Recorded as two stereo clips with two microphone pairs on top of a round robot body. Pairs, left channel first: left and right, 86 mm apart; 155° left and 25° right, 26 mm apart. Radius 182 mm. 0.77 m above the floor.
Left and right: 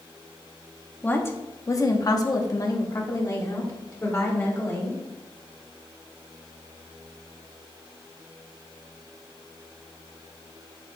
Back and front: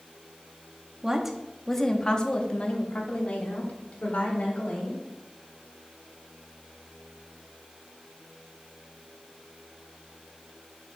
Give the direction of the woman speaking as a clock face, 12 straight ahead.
11 o'clock.